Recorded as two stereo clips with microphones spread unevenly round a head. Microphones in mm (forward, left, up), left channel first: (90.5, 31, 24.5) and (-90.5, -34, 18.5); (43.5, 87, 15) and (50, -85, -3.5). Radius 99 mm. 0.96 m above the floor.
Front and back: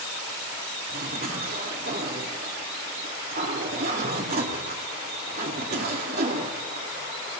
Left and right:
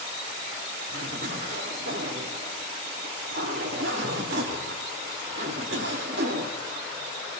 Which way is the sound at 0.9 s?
120° right.